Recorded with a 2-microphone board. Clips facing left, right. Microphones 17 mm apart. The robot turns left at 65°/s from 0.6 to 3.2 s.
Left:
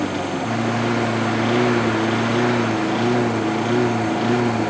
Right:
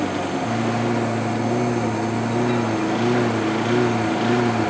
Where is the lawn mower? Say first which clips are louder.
Even; 10° left (ahead or behind); by 4.7 s 5° right (ahead or behind).